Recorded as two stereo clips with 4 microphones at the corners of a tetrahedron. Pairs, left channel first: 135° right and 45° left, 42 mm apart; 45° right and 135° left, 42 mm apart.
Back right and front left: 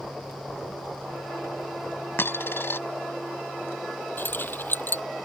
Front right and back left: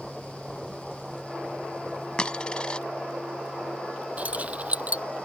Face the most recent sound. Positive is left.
turn(degrees=-170)